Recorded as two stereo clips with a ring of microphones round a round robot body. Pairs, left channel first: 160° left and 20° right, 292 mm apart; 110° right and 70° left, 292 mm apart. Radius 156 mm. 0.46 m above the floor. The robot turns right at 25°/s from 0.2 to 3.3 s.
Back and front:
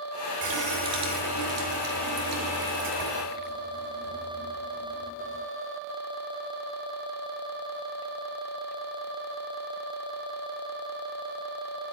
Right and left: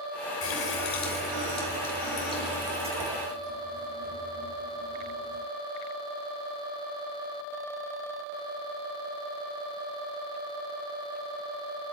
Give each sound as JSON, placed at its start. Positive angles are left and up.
{"t": 0.4, "sound": "a running tap", "azimuth_deg": -70, "distance_m": 5.5}